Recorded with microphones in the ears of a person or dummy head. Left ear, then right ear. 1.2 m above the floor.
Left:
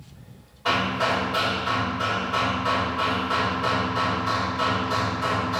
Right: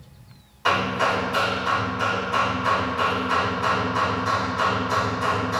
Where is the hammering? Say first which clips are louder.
Right 2 dB; 70° right (ahead or behind), 3.5 m.